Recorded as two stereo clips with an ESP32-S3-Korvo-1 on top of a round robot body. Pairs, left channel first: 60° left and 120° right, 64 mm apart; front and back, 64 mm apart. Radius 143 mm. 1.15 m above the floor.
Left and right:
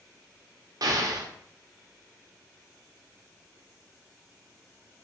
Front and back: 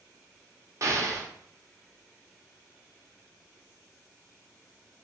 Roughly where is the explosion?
Behind right.